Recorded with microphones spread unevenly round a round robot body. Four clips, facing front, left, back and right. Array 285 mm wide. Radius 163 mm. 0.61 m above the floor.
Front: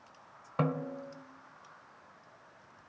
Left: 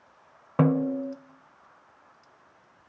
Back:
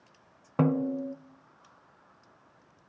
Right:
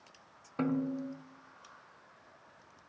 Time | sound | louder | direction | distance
0.6 | a snare drum | left 9 dB, back 7 dB | 85° left | 1.0 m